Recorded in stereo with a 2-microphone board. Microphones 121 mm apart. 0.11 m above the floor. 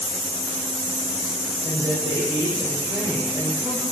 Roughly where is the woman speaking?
Right.